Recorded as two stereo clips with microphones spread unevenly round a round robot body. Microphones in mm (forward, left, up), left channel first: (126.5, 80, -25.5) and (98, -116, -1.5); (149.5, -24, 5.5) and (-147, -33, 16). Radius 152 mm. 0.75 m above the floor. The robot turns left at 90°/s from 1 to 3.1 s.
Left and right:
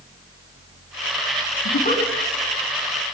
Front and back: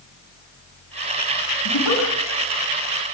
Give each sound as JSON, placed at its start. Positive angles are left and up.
{"t": 1.6, "sound": "a giggle", "azimuth_deg": 55, "distance_m": 7.0}